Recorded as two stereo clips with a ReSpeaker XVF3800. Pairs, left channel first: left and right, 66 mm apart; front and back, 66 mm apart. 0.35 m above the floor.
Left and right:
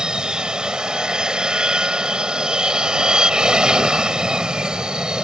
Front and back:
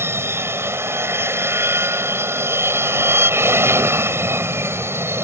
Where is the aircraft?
165° right.